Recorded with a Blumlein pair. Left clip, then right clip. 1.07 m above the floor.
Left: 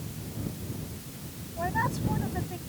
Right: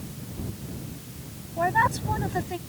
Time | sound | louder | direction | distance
1.6 | a woman speaking | right 7 dB | 70° right | ?